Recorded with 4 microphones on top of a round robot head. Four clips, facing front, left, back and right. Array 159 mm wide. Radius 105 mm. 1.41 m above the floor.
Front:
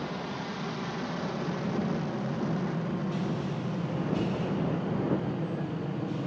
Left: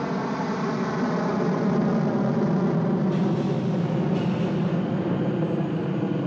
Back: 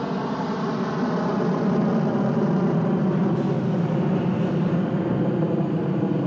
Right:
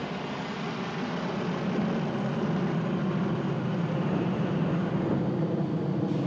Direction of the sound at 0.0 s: 140° left.